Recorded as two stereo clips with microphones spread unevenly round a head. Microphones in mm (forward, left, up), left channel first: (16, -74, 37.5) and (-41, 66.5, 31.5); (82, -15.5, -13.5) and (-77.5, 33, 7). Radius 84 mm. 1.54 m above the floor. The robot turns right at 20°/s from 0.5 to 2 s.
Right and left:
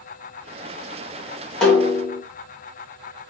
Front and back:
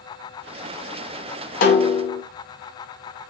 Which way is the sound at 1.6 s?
15° left.